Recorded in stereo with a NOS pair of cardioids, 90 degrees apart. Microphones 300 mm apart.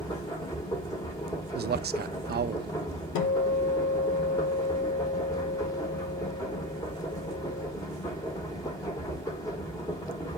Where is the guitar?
70° left, 1.2 m.